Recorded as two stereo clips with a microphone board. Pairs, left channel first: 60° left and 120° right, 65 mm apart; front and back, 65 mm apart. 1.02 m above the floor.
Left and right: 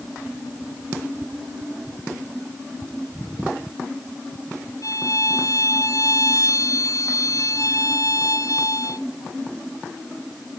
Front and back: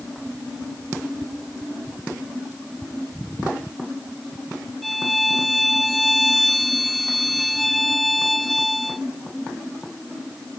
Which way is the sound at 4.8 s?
90° left.